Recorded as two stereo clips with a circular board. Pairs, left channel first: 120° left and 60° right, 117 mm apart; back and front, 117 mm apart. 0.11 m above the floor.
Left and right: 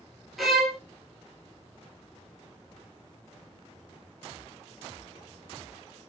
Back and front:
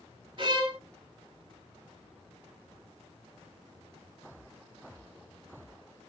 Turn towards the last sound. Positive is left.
turn(degrees=30)